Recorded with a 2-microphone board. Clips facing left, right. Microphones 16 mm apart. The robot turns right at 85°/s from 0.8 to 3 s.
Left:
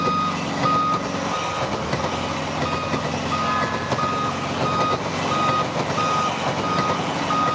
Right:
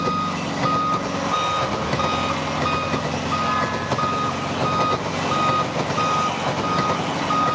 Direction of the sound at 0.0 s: 165° left.